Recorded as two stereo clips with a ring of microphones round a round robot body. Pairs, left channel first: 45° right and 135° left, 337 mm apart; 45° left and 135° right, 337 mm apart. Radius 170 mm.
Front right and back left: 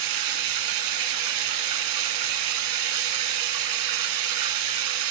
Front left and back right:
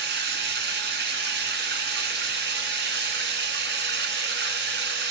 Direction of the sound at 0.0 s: 165° left.